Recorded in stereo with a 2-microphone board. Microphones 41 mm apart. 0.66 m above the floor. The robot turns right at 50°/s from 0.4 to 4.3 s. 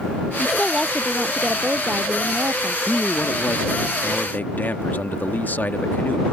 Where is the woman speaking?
160° left; by 2.8 s 80° right.